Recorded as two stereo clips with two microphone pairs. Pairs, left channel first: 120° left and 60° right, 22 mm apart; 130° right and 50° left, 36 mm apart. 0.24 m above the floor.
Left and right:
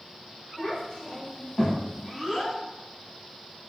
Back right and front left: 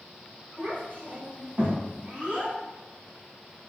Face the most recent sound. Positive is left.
turn(degrees=10)